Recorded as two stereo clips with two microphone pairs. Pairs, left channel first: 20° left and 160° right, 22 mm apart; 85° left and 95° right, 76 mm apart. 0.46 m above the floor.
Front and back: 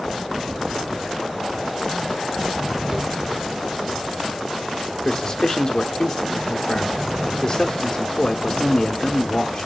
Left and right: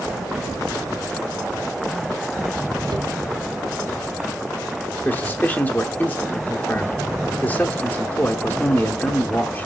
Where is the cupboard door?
110° right, 1.0 m.